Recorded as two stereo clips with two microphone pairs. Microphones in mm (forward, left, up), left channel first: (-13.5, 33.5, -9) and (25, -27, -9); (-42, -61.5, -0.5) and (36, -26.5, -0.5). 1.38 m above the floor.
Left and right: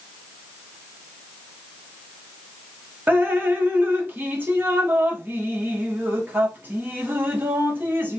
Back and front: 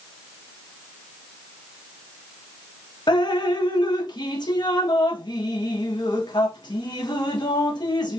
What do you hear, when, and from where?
3.1 s dripping: 120° right, 0.7 m